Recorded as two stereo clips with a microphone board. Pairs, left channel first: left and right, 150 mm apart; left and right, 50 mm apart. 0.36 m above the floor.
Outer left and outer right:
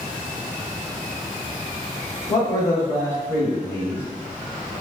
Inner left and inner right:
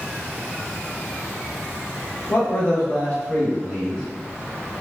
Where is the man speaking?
25° left (ahead or behind), 1.3 m; by 4.0 s 15° left (ahead or behind), 2 m.